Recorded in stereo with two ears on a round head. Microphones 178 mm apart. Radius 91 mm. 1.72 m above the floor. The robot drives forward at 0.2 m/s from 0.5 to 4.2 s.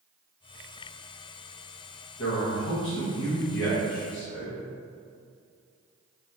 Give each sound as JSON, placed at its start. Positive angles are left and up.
{"t": 2.2, "sound": "a man speaking", "side_deg": 80, "distance_m": 1.1}